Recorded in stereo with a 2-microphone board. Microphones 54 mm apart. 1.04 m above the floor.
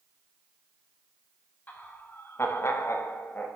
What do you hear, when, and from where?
1.7 s laughter: 35° left (ahead or behind), 1.7 m; by 3.5 s 30° left (ahead or behind), 1.1 m